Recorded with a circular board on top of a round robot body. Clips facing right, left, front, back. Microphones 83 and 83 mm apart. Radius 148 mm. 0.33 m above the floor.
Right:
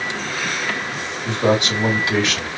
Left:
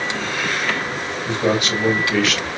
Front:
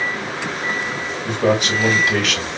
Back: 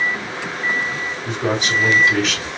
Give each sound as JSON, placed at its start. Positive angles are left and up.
{"t": 1.2, "sound": "a man speaking", "azimuth_deg": -25, "distance_m": 3.0}